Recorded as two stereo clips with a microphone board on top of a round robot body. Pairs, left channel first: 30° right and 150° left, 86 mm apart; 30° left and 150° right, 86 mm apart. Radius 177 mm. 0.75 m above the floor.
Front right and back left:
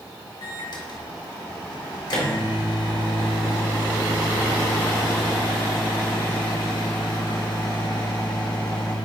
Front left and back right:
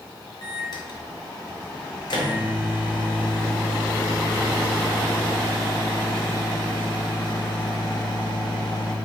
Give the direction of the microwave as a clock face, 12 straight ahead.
12 o'clock.